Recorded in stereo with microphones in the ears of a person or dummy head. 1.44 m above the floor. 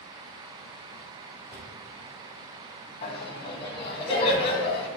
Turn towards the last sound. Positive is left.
turn(degrees=30)  # may be behind; listen again after turning